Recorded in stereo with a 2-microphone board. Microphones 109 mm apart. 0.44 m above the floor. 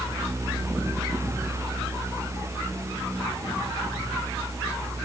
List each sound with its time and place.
Only background noise.